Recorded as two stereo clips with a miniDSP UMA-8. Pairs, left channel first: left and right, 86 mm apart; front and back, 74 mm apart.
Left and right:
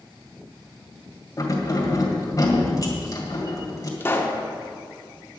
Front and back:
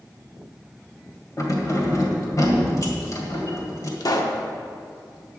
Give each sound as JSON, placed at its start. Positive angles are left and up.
{"t": 1.4, "sound": "keys jangling", "azimuth_deg": 40, "distance_m": 2.0}
{"t": 4.0, "sound": "a pop", "azimuth_deg": 30, "distance_m": 1.0}